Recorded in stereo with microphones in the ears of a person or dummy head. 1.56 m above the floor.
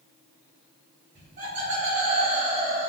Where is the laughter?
40° right (ahead or behind), 1.6 m.